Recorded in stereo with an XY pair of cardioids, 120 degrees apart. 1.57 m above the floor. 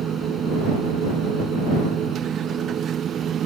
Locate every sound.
0.0 s a machine running: 45° right